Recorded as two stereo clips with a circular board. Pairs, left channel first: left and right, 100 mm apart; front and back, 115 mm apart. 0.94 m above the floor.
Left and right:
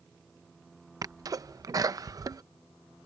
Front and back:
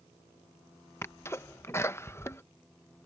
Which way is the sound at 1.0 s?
60° right.